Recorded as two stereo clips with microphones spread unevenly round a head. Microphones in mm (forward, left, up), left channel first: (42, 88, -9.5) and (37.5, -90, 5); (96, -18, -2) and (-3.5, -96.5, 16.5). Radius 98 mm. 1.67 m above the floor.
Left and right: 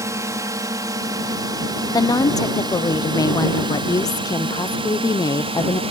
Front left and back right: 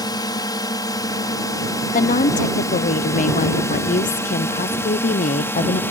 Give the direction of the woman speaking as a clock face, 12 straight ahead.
11 o'clock.